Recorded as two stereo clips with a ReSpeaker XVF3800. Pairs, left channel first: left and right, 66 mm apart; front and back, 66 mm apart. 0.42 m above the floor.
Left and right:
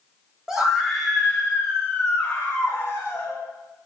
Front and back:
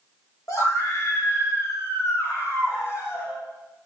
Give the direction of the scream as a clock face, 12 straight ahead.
12 o'clock.